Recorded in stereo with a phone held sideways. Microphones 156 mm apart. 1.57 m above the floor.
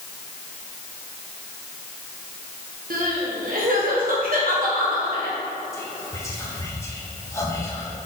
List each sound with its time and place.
2.9 s crying: 70° right (ahead or behind), 1.5 m
5.7 s whispering: 20° left (ahead or behind), 1.4 m